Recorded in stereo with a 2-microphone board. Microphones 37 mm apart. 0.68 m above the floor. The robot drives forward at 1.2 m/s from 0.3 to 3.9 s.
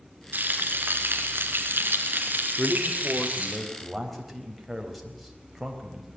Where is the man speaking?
5° right (ahead or behind), 2.5 m.